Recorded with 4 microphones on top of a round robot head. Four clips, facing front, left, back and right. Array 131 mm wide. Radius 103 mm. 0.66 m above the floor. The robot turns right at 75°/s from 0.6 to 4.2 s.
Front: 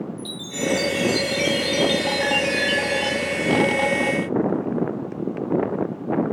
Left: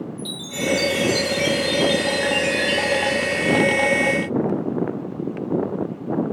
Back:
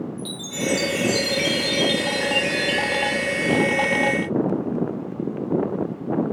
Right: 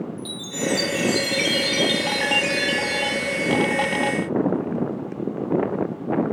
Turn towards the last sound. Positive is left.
turn(degrees=90)